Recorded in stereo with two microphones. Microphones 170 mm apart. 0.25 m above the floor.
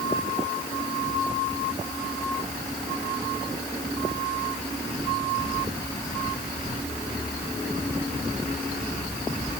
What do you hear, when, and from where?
Only background noise.